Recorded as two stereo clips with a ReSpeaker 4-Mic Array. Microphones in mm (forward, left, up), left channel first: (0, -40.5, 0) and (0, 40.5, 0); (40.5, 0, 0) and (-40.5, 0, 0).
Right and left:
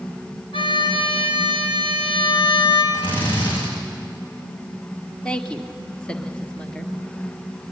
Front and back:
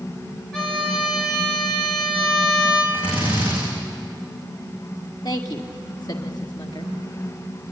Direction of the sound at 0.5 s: 85° right.